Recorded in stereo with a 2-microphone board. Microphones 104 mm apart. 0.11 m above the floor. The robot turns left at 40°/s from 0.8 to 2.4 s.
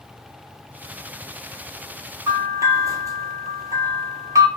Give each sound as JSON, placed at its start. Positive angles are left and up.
{"t": 2.3, "sound": "a bell", "side_deg": -25, "distance_m": 0.6}